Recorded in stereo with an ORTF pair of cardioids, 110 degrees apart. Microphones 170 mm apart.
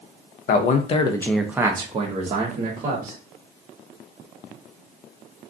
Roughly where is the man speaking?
Ahead left.